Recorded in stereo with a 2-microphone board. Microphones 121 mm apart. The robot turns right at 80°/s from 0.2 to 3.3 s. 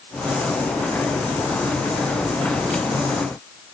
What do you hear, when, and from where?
Only background noise.